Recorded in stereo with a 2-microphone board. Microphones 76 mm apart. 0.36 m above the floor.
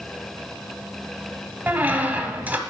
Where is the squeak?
20° right (ahead or behind), 1.0 m.